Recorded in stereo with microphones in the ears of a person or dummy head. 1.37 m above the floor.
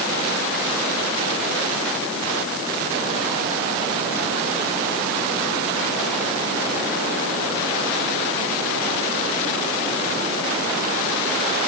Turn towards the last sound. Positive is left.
No sound to turn to.